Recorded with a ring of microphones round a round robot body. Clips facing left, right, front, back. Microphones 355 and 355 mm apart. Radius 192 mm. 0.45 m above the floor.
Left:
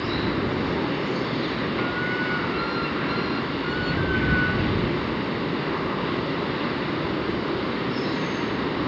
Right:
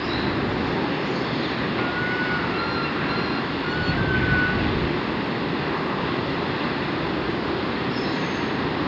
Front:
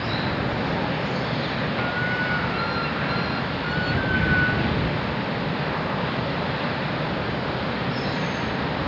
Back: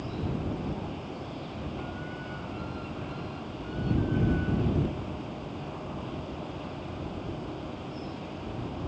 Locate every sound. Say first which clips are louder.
0.0 s running water: even, front 6 dB; straight ahead